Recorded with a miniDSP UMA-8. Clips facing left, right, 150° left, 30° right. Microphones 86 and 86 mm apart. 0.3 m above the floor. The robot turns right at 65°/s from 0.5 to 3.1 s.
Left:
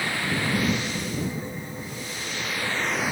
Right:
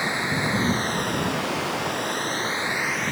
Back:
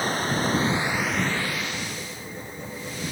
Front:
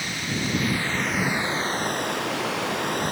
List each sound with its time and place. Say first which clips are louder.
0.0 s running water: right 2 dB, back 4 dB; 160° right; by 3.1 s 10° left